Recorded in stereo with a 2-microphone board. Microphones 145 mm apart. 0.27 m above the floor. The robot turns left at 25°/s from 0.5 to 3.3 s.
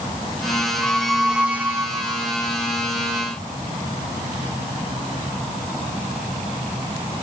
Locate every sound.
0.8 s a squeak: 10° left; by 2.3 s 30° right